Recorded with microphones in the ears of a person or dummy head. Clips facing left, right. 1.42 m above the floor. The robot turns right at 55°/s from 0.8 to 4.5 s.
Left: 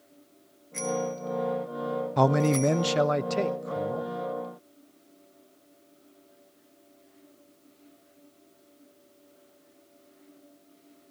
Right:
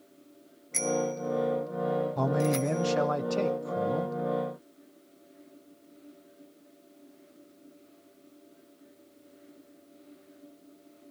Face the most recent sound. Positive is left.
turn(degrees=-135)